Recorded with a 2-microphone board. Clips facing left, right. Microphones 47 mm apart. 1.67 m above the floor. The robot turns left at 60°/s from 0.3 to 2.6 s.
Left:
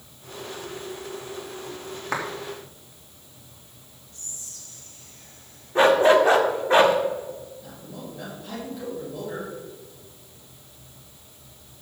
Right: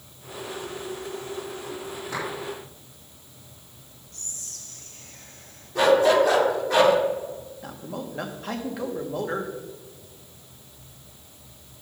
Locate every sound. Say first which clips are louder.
2.1 s a clap: left 4 dB; 80° left, 3 m; by 2.2 s 70° left (ahead or behind), 3 m
4.1 s whispering: right 2 dB; 70° right (ahead or behind), 2 m
5.8 s a dog barking: left 2 dB; 35° left (ahead or behind), 1.4 m
7.6 s a man speaking: right 4 dB; 70° right (ahead or behind), 1.9 m